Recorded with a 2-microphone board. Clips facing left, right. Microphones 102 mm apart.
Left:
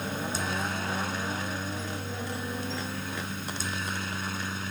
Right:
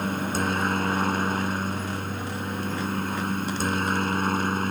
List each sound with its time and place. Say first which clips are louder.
0.0 s a helicopter: right 6 dB; 55° right (ahead or behind)